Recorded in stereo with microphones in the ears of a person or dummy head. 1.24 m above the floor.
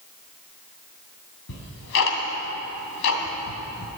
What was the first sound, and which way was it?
Ticking, 65° left (ahead or behind).